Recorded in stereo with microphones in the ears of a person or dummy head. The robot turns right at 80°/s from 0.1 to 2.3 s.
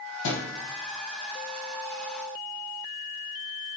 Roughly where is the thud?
Left.